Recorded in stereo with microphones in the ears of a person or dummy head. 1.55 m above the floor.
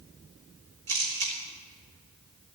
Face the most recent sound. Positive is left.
turn(degrees=-60)  # may be behind; listen again after turning